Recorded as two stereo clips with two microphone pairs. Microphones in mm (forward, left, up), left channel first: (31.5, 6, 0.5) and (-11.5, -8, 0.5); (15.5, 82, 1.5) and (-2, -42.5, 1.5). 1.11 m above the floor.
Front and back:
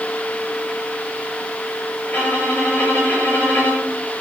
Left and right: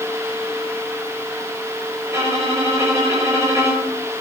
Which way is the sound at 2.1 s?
30° right.